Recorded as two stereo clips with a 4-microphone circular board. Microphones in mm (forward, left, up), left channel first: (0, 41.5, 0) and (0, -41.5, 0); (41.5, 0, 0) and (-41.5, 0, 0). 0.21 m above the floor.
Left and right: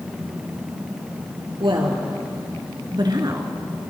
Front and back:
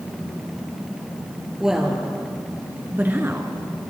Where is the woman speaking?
95° right, 3.5 m; by 3.5 s 125° right, 2 m.